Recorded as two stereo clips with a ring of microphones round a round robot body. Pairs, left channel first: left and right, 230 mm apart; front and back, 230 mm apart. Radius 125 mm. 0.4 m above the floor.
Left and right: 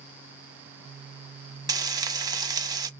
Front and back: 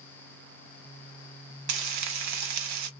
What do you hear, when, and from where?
1.7 s frying: 165° right, 0.7 m